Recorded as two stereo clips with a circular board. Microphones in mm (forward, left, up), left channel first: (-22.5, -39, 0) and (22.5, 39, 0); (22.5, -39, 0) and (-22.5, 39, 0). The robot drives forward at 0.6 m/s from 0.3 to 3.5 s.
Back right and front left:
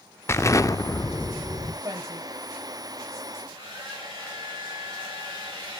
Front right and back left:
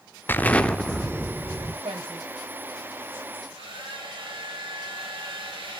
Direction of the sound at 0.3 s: 100° right.